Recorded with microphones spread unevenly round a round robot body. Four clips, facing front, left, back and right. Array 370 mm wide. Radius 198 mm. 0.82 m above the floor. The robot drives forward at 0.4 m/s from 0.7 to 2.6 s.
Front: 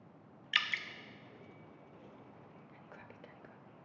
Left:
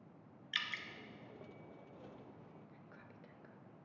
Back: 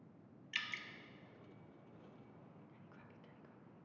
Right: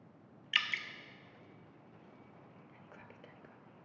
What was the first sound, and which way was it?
Dripping, 35° right.